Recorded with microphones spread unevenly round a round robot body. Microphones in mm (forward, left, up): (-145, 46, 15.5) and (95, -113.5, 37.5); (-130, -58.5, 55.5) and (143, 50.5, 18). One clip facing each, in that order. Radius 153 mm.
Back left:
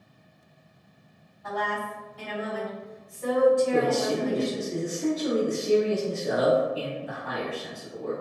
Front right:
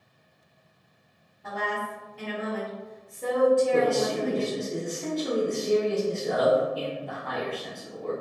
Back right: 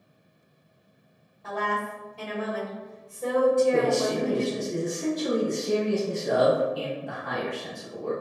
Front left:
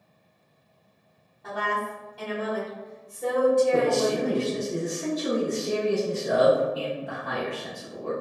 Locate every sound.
1.4 s a woman speaking: 60° right, 1.4 m
3.7 s a man speaking: 85° left, 0.8 m